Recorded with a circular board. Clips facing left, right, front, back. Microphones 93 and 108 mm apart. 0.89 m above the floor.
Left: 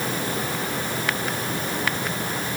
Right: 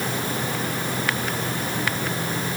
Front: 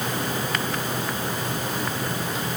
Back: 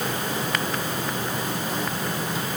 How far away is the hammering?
I don't hear hammering.